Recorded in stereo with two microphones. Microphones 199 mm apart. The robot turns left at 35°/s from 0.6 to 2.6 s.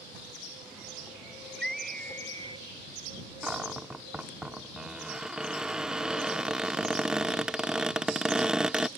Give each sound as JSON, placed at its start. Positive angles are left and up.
{"t": 1.4, "sound": "a scream", "azimuth_deg": -120}
{"t": 3.4, "sound": "a cupboard door", "side_deg": -5}